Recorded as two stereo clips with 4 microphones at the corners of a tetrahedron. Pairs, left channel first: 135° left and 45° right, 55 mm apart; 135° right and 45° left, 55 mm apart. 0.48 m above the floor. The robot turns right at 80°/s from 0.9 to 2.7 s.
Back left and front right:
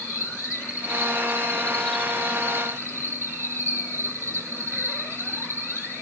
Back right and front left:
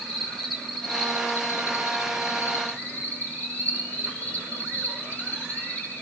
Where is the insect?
140° left, 4.5 m; by 6.0 s 75° right, 4.5 m.